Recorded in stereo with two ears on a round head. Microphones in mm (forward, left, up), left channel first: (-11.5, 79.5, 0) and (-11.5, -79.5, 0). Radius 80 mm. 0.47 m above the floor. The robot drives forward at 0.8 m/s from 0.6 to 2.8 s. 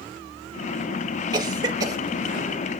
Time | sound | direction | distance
1.3 | a cough | 25° right (ahead or behind) | 1.3 m